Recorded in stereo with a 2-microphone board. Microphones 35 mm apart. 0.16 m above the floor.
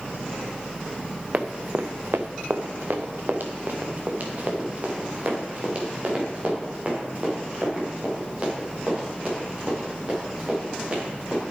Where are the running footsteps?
40° right (ahead or behind), 1.2 m; by 11.4 s 35° right (ahead or behind), 10 m.